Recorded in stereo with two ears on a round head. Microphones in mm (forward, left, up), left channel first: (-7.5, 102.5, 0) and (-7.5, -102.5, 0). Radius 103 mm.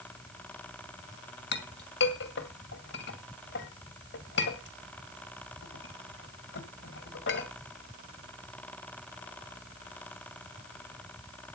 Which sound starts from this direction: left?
A clink, at 1.5 s.